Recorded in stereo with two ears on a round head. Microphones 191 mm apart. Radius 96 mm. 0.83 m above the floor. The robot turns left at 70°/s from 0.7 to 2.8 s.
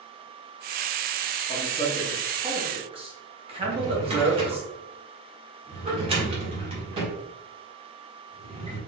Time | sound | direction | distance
1.5 | a man speaking | 35° left (ahead or behind) | 1.2 m
3.6 | a drawer | 25° right (ahead or behind) | 1.6 m